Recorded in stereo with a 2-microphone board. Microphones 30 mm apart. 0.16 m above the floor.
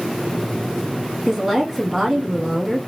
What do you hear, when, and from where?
1.3 s a woman speaking: 10° right (ahead or behind), 1.2 m